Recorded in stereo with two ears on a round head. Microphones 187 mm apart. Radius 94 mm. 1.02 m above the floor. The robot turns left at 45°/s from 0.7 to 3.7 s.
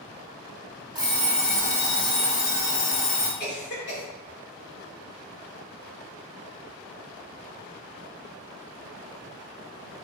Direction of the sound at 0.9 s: 155° right.